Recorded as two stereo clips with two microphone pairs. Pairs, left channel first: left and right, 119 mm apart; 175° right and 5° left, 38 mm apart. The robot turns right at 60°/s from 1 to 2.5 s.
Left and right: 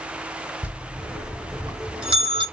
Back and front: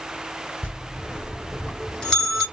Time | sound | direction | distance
0.6 | a bell | 165° right | 1.8 m